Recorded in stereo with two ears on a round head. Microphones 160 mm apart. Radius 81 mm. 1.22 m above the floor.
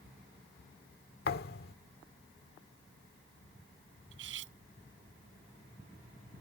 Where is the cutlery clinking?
85° right.